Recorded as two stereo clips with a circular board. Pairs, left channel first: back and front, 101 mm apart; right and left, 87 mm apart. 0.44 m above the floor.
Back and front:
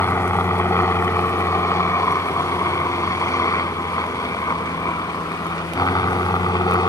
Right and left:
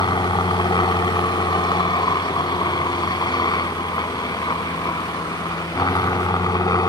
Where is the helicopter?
115° right; by 6.9 s 130° right.